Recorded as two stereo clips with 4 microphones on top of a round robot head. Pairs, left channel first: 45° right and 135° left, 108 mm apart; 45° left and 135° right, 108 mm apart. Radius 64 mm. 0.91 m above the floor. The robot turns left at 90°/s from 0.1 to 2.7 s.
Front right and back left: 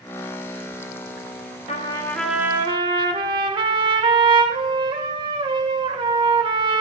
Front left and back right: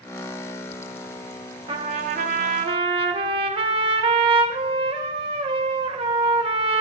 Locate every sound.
1.7 s a trumpet: 85° right, 1.1 m; by 6.8 s 175° right, 1.1 m